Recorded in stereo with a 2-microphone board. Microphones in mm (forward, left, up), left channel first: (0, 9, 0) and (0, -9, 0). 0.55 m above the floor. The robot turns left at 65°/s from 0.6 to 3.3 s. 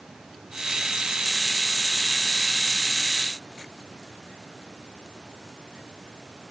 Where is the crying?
No crying in this recording.